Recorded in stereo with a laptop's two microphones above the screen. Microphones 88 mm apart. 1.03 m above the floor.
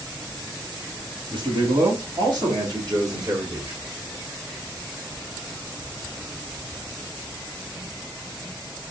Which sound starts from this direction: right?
A man speaking, at 1.3 s.